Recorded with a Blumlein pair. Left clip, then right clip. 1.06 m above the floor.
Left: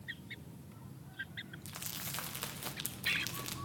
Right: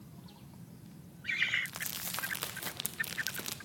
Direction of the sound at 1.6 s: 10° right.